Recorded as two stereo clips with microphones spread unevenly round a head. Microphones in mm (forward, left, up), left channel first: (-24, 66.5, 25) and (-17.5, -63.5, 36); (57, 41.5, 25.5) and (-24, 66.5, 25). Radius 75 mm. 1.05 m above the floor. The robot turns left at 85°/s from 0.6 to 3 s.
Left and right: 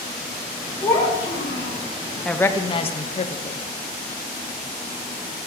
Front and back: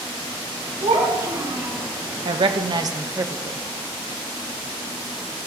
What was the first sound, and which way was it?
A child speaking, 150° left.